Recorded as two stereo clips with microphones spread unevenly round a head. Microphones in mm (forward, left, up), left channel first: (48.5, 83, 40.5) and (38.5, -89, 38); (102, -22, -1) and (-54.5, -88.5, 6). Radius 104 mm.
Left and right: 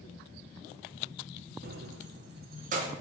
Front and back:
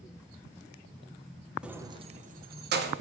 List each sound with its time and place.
1.6 s keys jangling: 75° right, 0.7 m; by 2.9 s 150° right, 1.2 m